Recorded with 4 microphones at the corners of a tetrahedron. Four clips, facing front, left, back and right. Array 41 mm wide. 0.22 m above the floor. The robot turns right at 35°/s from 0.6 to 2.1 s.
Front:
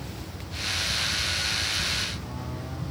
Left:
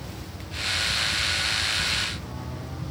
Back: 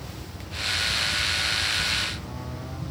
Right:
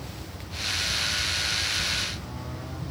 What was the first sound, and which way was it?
Only background noise.